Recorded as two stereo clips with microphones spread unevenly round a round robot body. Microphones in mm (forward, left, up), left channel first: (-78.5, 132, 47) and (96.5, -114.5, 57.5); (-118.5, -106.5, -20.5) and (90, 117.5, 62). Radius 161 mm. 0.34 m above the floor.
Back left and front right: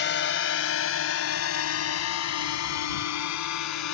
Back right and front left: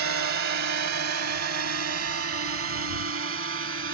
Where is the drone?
80° left; by 3.9 s 105° left.